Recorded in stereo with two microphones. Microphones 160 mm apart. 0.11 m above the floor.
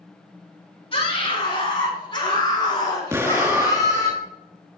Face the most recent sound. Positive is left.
turn(degrees=-20)  # may be behind; listen again after turning